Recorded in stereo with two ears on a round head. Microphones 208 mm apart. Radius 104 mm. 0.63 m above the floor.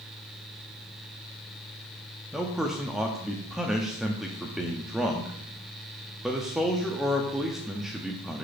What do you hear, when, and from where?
2.3 s a man speaking: centre (ahead or behind), 0.6 m